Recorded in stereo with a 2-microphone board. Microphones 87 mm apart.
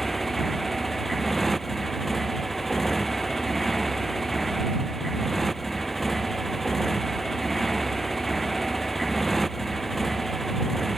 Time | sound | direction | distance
0.0 | a motorcycle | centre (ahead or behind) | ?